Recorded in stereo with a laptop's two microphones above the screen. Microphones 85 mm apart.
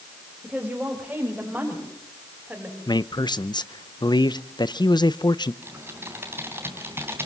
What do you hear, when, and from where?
0.4 s a woman speaking: 5° right (ahead or behind), 5 m; by 2.8 s 20° right (ahead or behind), 6.5 m
2.9 s a man speaking: 60° left (ahead or behind), 0.8 m
5.6 s typing on a keyboard: 25° right (ahead or behind), 3.5 m